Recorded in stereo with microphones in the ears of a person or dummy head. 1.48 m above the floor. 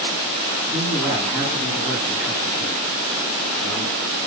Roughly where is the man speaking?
Centre.